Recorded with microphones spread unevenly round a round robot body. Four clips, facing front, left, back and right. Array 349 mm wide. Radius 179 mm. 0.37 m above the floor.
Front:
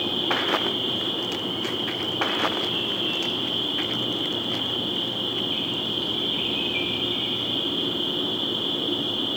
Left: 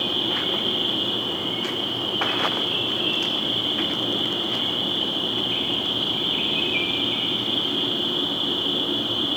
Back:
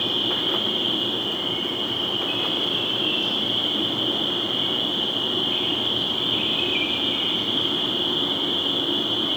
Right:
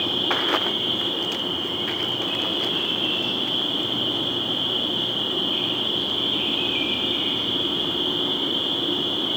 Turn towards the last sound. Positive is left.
turn(degrees=50)